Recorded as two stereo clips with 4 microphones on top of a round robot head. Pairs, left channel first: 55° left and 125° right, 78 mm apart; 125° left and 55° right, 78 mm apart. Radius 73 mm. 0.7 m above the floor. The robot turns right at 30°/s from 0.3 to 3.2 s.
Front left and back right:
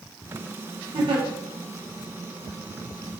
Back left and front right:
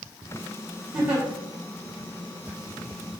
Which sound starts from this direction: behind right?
A giggle, at 0.9 s.